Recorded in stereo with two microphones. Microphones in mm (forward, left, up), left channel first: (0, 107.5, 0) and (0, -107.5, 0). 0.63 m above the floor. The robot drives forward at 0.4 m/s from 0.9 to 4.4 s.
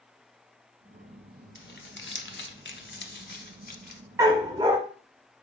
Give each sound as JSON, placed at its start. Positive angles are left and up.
{"t": 1.6, "sound": "crumpling", "side_deg": 50, "distance_m": 0.8}
{"t": 4.2, "sound": "a dog barking", "side_deg": -15, "distance_m": 0.8}